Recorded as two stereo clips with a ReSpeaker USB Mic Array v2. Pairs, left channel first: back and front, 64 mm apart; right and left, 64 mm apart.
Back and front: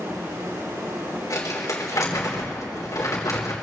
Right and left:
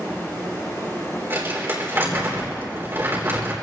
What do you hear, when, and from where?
0.0 s running water: 40° right, 8 m
1.3 s crumpling: 145° left, 3.5 m